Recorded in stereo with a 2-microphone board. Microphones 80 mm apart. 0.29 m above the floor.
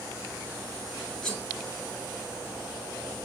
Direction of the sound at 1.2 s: 10° left (ahead or behind).